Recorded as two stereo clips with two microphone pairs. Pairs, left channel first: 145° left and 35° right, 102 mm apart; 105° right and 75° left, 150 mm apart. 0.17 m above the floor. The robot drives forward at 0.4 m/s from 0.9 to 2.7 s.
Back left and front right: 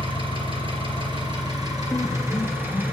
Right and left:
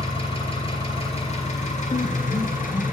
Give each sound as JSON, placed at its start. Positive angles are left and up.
{"t": 0.0, "sound": "an engine running", "azimuth_deg": -60, "distance_m": 1.1}
{"t": 1.9, "sound": "a piano", "azimuth_deg": -150, "distance_m": 0.6}